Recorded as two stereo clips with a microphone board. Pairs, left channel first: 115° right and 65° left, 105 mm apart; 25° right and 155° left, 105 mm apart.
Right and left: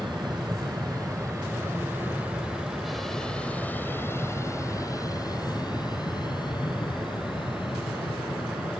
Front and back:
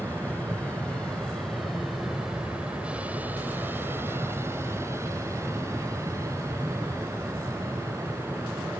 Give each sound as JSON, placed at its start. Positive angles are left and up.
{"t": 0.0, "sound": "an aircraft", "azimuth_deg": 45}